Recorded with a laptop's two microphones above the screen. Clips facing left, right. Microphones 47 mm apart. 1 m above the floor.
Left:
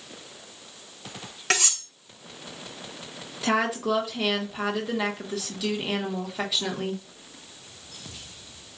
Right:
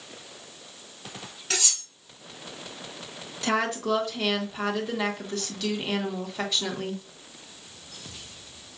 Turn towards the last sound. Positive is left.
turn(degrees=5)  # may be behind; listen again after turning